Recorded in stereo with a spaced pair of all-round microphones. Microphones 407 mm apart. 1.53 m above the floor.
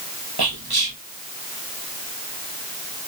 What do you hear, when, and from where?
0.4 s whispering: 65° right (ahead or behind), 1.0 m